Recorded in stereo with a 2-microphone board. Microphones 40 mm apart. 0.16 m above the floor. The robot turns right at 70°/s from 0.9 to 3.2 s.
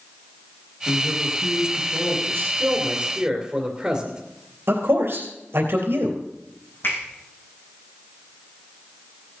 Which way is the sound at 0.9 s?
55° right.